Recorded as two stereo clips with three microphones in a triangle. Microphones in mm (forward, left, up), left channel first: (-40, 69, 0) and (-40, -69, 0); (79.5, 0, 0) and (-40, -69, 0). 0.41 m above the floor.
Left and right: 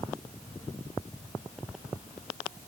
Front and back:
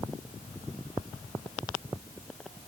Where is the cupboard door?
I don't hear a cupboard door.